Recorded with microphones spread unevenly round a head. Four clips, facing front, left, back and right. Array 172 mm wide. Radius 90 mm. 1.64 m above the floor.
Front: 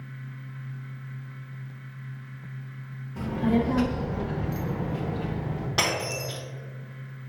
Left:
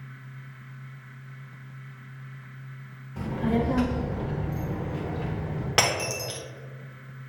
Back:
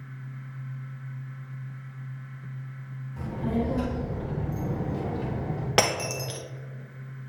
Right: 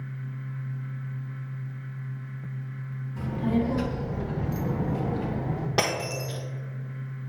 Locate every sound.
3.2 s a child speaking: 50° left, 1.4 m; by 5.7 s 120° right, 1.2 m
5.8 s breaking glass: straight behind, 1.0 m